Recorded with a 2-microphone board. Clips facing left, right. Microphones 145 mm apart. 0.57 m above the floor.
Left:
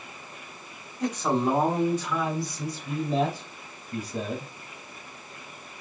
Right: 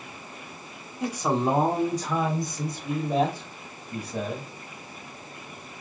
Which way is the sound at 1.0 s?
5° right (ahead or behind).